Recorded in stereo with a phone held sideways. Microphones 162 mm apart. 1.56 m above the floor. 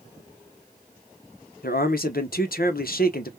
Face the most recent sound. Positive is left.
turn(degrees=65)  # may be behind; listen again after turning